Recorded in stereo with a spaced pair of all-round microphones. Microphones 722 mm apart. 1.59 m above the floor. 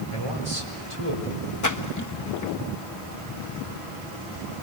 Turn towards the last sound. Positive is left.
turn(degrees=25)  # may be behind; listen again after turning